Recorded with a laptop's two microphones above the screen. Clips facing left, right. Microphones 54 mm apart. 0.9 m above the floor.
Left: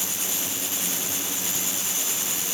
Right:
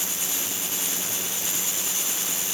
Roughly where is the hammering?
I don't hear hammering.